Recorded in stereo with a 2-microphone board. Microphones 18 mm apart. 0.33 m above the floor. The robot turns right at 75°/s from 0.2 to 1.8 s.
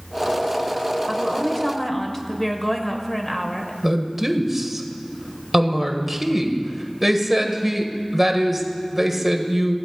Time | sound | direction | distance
1.1 | a woman speaking | 25° left (ahead or behind) | 1.1 m
3.8 | a woman speaking | 10° right (ahead or behind) | 1.2 m